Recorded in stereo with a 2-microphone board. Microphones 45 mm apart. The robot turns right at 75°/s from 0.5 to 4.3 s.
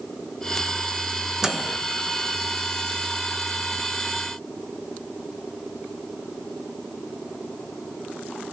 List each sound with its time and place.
1.4 s a microwave: 10° right (ahead or behind), 0.6 m; by 1.8 s 15° right (ahead or behind), 0.6 m